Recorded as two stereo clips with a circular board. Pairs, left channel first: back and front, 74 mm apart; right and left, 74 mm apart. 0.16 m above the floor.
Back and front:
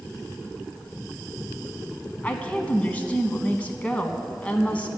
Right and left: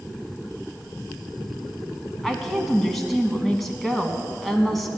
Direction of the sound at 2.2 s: 170° right.